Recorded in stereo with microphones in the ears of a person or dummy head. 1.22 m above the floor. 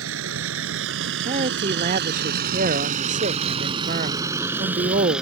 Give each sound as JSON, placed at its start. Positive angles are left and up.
{"t": 0.0, "sound": "a vehicle", "side_deg": -80}
{"t": 1.2, "sound": "a man speaking", "side_deg": -40}